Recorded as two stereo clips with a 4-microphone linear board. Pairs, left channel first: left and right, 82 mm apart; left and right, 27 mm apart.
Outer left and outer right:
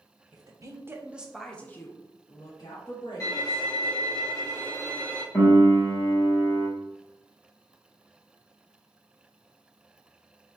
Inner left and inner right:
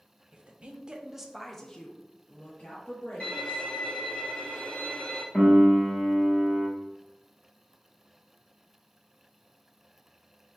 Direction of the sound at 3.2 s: 40° left (ahead or behind).